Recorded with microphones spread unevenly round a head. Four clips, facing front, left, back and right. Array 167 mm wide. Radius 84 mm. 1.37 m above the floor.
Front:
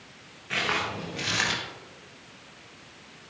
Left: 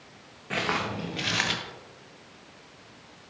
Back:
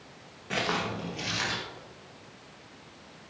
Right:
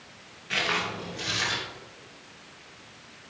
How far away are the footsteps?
About 1.5 m.